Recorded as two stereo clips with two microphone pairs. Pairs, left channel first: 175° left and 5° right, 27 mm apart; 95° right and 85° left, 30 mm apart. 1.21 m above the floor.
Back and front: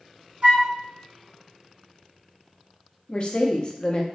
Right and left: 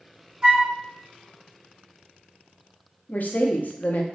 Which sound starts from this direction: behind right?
A woman speaking, at 3.1 s.